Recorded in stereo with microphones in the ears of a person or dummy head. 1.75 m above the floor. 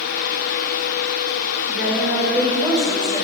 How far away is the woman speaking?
About 6.5 m.